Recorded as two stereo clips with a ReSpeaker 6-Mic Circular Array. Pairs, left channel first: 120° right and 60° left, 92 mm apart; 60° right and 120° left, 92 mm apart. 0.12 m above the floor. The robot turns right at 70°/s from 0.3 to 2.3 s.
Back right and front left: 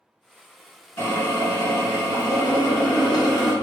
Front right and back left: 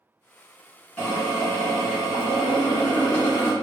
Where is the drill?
110° right, 1.8 m; by 3.5 s 20° right, 1.8 m.